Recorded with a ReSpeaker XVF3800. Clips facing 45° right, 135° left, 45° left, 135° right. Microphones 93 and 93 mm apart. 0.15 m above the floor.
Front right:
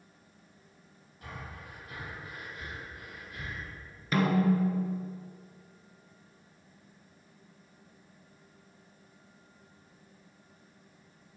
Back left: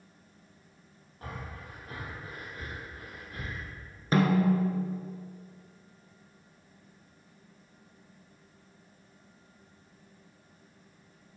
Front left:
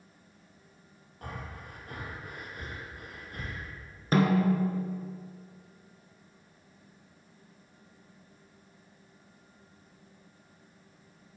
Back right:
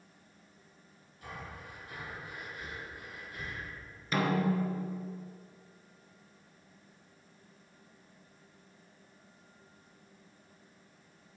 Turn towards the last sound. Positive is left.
turn(degrees=85)